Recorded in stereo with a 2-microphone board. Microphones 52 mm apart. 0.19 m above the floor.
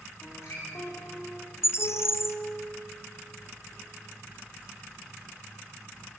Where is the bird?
55° left (ahead or behind), 1.1 m.